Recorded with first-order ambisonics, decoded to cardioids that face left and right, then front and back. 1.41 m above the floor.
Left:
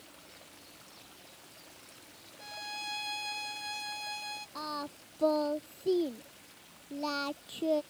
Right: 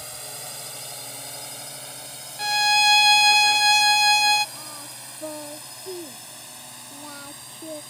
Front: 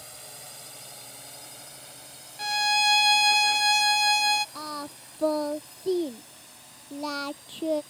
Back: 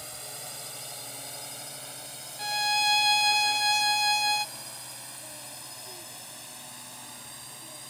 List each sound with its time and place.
0.0 s a drone: 100° right; by 7.9 s 115° right
2.4 s a violin: 80° right
4.5 s singing: 20° left